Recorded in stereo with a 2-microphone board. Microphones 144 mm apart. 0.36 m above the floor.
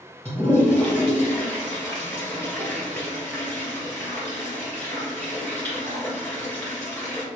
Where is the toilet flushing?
15° left (ahead or behind), 1.9 m.